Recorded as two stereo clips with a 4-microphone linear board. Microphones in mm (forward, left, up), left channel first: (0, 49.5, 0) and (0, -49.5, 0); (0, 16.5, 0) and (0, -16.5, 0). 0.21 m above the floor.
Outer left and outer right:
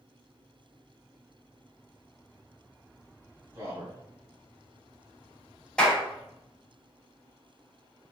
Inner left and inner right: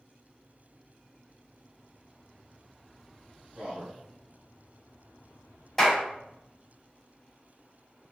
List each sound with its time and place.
3.5 s a man speaking: 30° right (ahead or behind), 1.4 m
5.8 s a clap: 10° left (ahead or behind), 0.8 m